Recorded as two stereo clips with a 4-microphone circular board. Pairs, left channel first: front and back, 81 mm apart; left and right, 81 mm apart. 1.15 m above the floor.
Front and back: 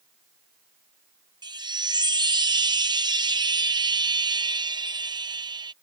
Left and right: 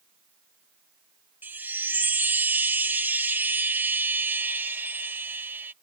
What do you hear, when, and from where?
1.4 s a chime: 155° right